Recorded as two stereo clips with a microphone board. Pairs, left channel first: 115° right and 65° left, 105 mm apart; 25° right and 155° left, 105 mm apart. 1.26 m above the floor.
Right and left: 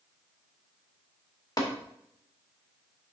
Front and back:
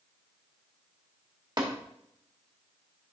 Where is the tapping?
160° right, 1.8 m.